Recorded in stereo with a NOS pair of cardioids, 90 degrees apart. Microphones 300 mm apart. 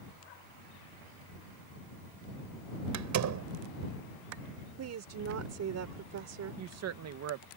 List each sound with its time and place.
2.9 s a door slam: 65° right
4.8 s a woman speaking: 55° right
6.6 s a woman speaking: 60° right